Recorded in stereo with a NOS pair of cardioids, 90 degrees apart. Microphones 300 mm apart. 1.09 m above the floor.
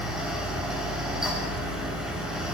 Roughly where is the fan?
Ahead.